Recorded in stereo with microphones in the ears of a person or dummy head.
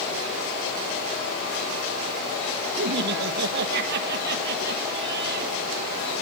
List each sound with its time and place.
2.8 s laughter: 60° right (ahead or behind), 1.7 m